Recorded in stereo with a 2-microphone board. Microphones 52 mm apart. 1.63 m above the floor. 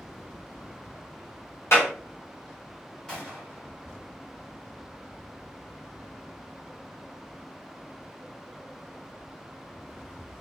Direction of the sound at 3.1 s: 10° left (ahead or behind).